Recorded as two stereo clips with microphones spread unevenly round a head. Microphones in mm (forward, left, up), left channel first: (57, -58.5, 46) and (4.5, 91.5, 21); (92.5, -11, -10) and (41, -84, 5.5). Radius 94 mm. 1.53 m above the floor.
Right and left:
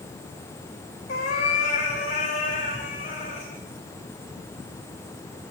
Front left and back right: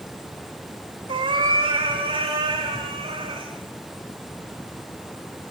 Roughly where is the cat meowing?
Behind right.